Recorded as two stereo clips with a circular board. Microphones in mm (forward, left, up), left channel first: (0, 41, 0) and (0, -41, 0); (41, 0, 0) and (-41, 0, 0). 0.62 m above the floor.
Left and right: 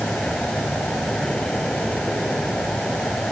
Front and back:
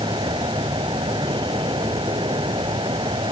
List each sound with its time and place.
0.0 s an insect: 175° left